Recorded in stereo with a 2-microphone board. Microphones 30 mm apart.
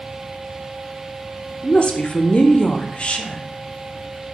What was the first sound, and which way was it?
A woman speaking, 35° left (ahead or behind).